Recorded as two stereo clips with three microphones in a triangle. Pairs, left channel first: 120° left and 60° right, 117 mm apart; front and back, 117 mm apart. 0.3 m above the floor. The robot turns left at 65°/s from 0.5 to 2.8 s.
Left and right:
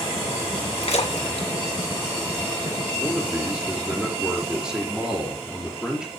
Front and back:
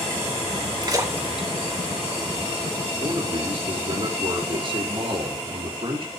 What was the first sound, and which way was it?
A splash, 135° left.